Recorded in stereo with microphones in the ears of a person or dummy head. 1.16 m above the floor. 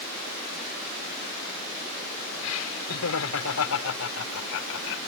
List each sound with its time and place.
2.4 s laughter: 75° left (ahead or behind)